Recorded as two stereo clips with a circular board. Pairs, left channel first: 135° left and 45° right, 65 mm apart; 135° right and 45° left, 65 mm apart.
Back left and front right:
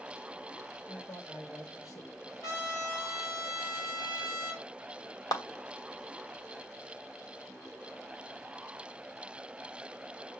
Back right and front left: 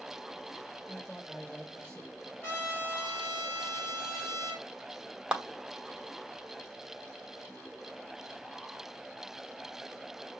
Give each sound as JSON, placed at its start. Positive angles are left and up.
{"t": 0.9, "sound": "a man speaking", "azimuth_deg": 150, "distance_m": 1.8}
{"t": 2.4, "sound": "a trumpet", "azimuth_deg": 170, "distance_m": 4.0}
{"t": 5.3, "sound": "a clap", "azimuth_deg": 120, "distance_m": 1.2}